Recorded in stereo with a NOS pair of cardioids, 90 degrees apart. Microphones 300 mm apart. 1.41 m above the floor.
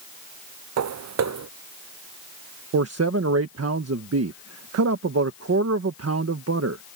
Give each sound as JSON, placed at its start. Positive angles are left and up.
{"t": 0.8, "sound": "footsteps", "azimuth_deg": -65}
{"t": 2.7, "sound": "a man speaking", "azimuth_deg": -55}